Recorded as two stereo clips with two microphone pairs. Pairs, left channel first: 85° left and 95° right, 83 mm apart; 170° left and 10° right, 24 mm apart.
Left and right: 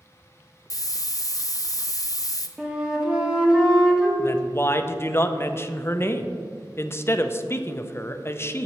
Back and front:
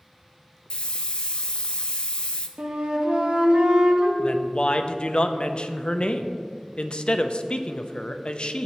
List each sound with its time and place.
0.7 s a hiss: 125° left, 0.7 m
2.6 s a flute: 15° right, 1.2 m
4.2 s a woman speaking: 140° left, 0.6 m